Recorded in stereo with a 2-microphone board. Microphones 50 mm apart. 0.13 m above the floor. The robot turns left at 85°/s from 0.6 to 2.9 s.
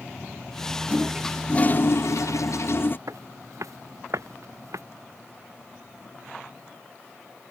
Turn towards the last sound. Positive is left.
turn(degrees=-85)